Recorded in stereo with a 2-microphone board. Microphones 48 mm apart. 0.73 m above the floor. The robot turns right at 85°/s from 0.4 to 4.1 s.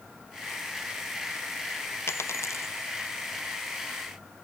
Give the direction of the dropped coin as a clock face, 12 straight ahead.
10 o'clock.